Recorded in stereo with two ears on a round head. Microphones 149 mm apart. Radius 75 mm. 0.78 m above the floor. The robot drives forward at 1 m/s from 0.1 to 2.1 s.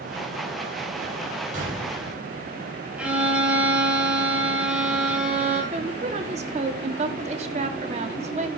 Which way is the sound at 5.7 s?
40° right (ahead or behind).